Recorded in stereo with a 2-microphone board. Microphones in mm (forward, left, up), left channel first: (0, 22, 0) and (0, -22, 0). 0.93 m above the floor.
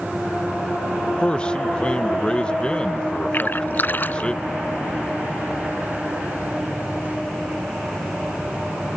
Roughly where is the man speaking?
Left.